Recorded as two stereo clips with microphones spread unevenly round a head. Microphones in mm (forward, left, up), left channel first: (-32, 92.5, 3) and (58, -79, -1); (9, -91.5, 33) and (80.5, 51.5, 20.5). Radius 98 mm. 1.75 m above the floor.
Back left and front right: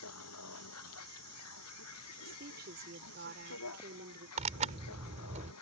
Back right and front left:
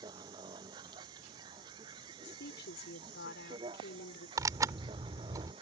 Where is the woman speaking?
105° right.